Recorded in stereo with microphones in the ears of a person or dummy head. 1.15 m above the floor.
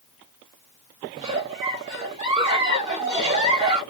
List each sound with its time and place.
1.2 s a giggle: 25° right (ahead or behind), 1.6 m